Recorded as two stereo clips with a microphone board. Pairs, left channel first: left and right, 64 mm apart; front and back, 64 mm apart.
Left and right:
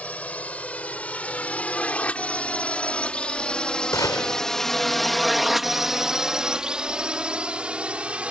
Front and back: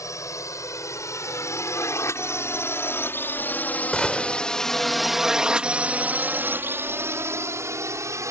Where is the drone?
25° left; by 8.3 s 160° right.